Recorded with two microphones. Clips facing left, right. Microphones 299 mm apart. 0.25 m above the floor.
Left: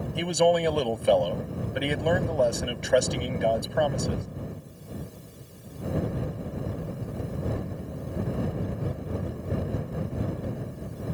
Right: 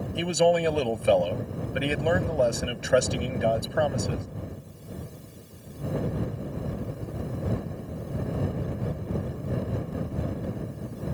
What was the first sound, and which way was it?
A man speaking, 5° right (ahead or behind).